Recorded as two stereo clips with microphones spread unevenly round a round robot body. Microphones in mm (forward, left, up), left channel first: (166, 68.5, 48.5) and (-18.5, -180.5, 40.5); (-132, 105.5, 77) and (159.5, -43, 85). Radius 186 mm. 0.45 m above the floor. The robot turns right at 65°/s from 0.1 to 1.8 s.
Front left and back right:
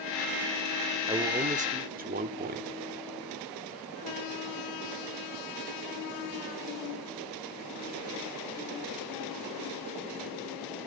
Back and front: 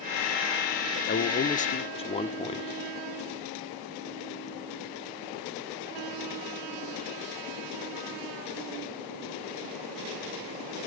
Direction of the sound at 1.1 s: 160° left.